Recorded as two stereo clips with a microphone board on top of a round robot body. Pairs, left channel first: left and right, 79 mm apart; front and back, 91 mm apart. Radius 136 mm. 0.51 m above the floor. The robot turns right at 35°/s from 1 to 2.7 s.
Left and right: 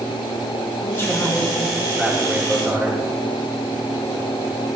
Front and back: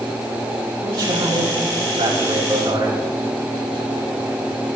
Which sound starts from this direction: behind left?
A man speaking, at 0.8 s.